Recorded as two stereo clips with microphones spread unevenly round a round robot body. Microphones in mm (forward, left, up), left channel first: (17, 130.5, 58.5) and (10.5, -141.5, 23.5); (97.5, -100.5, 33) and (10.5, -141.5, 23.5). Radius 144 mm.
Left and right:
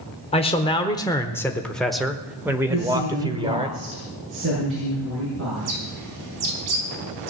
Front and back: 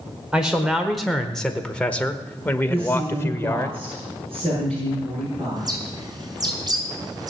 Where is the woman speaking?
135° right, 6 m.